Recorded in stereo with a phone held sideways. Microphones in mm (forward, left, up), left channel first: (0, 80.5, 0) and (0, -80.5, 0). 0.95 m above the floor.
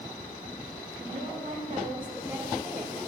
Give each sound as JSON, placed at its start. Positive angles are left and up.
{"t": 1.0, "sound": "a woman speaking", "side_deg": -60, "distance_m": 1.6}